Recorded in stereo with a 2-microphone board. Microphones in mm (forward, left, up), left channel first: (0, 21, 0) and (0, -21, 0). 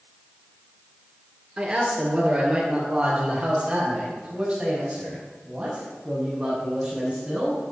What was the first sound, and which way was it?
A man speaking, 30° right (ahead or behind).